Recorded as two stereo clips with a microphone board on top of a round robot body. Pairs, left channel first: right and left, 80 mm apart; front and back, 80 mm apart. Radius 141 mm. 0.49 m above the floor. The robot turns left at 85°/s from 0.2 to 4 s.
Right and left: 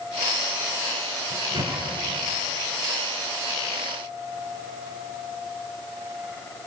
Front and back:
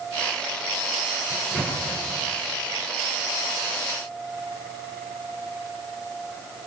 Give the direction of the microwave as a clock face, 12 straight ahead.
9 o'clock.